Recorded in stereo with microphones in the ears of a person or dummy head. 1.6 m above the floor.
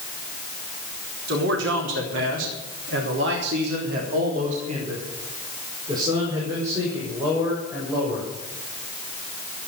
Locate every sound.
1.3 s a man speaking: 70° right (ahead or behind), 4.5 m; by 8.3 s 5° right (ahead or behind), 7.5 m